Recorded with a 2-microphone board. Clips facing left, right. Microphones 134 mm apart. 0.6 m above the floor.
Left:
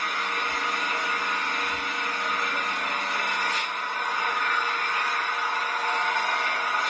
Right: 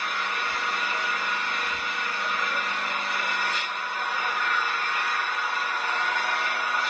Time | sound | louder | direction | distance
0.0 | an engine running | even | 40° left (ahead or behind) | 2 m